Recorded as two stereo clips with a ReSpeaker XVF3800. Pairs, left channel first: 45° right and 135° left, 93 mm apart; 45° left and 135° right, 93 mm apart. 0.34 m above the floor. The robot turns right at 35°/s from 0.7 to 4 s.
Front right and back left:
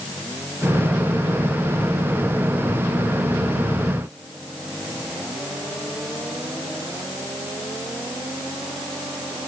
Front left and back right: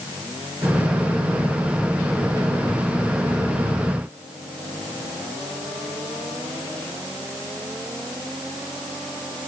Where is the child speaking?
I don't hear a child speaking.